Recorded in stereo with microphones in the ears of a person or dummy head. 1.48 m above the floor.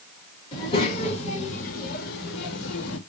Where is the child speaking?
35° left (ahead or behind), 2.5 m; by 3.0 s 80° left, 1.7 m.